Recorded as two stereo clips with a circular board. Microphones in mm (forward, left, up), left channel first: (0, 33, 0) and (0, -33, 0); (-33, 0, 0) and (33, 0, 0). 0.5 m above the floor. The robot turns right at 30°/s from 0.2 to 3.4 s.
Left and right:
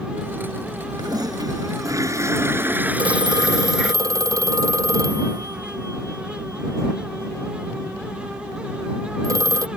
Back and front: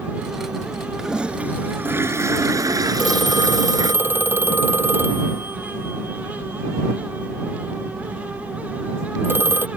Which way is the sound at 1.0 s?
85° right.